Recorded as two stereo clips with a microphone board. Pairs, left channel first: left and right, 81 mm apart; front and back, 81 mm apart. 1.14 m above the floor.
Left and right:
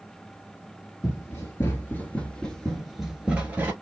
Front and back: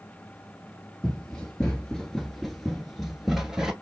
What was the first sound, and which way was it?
Running footsteps, 70° left.